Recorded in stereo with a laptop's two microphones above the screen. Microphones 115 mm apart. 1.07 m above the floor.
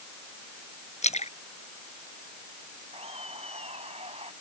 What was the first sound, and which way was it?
A splash, 85° left.